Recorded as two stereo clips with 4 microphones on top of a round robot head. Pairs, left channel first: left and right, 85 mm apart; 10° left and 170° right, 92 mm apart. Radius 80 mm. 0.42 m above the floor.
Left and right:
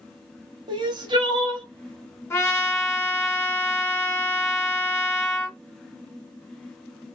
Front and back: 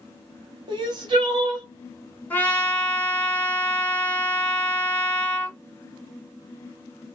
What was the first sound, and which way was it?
Crying, 130° right.